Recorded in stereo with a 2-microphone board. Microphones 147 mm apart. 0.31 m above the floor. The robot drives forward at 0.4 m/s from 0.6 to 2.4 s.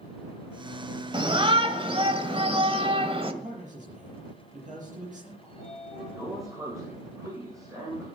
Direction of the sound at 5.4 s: 25° right (ahead or behind).